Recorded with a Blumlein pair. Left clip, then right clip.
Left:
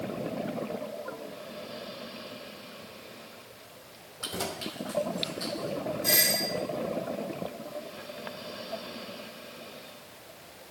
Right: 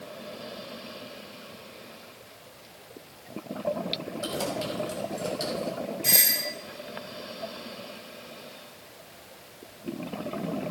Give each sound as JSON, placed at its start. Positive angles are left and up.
{"t": 4.2, "sound": "keys jangling", "azimuth_deg": 5, "distance_m": 3.0}
{"t": 6.0, "sound": "a doorbell", "azimuth_deg": -20, "distance_m": 3.0}